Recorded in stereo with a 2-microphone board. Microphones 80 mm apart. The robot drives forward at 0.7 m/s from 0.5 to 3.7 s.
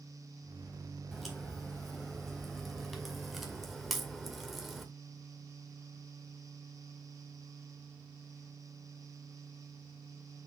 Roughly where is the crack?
Centre.